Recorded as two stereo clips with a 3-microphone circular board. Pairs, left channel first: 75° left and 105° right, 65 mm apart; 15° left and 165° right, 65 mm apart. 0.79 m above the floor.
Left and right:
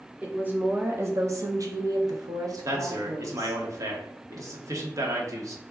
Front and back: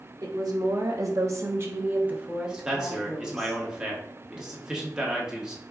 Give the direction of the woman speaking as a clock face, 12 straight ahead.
6 o'clock.